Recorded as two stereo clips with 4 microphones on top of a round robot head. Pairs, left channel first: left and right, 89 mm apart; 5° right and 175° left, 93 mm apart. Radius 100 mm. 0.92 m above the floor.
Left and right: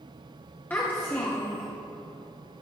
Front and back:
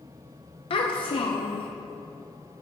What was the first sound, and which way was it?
A child speaking, 20° left.